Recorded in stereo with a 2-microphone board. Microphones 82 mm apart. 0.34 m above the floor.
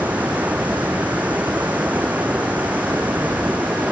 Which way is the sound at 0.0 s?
20° right (ahead or behind).